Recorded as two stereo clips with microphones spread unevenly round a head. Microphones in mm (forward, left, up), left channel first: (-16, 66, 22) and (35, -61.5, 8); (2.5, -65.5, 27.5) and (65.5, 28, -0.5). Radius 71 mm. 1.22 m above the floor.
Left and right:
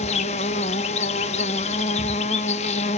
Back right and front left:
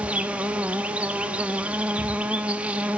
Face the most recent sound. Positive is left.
turn(degrees=145)